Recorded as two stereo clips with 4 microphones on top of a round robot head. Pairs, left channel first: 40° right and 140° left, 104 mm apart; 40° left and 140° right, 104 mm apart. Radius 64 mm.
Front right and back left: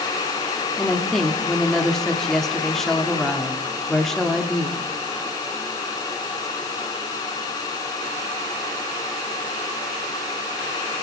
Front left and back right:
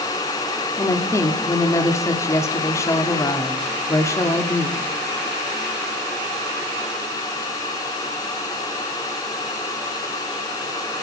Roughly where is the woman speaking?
Ahead left.